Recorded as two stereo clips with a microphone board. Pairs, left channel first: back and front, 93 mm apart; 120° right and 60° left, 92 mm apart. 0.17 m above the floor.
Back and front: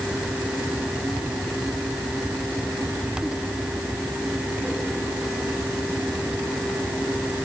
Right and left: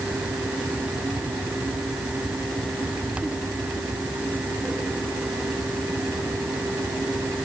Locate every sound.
Only background noise.